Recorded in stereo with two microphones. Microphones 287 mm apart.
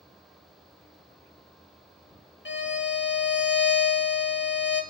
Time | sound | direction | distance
2.5 | a violin | 40° left (ahead or behind) | 0.6 m